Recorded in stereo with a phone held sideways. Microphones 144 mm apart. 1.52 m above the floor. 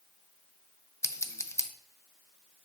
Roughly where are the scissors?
Centre.